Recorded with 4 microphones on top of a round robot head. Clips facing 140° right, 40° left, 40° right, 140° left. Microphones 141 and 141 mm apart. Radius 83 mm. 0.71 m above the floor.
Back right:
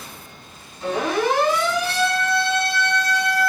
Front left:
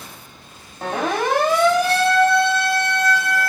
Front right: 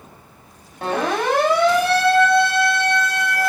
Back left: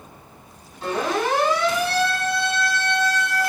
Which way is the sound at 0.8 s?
Straight ahead.